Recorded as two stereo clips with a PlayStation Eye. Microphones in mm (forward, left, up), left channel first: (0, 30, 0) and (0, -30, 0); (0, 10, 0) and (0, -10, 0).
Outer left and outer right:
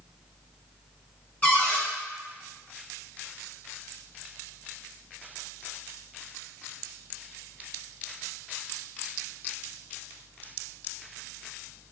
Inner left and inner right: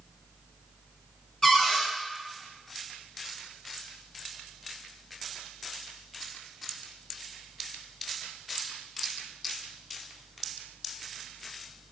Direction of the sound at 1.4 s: 20° left (ahead or behind).